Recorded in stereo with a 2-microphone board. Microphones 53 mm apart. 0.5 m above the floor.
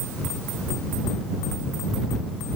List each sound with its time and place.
Only background noise.